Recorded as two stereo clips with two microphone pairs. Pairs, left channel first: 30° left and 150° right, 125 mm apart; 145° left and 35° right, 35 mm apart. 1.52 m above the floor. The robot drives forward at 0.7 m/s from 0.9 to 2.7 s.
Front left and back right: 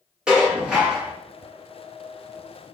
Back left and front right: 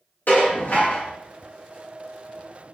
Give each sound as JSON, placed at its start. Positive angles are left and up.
{"t": 0.3, "sound": "dishes clattering", "azimuth_deg": 125, "distance_m": 2.0}